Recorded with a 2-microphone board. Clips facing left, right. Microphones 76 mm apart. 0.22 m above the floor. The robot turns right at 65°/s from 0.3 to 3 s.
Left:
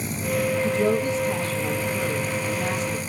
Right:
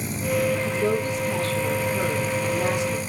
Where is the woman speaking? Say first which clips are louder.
Left 2 dB; 115° left, 6.5 m; by 3.0 s 95° right, 6.5 m.